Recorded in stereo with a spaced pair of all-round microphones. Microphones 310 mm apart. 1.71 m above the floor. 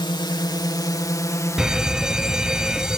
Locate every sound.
0.0 s a drone: 15° left (ahead or behind); by 3.0 s 5° left (ahead or behind)
1.6 s a fire alarm: centre (ahead or behind)